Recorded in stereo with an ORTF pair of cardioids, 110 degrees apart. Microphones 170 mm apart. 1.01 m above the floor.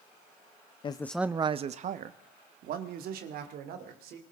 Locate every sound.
0.8 s a man speaking: 35° left, 0.6 m; by 4.2 s 75° right, 3.5 m